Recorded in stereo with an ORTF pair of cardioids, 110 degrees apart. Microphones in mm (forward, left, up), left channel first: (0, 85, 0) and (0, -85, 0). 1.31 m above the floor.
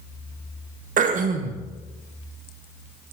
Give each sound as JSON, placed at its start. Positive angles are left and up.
{"t": 1.0, "sound": "throat clearing", "azimuth_deg": -50, "distance_m": 1.1}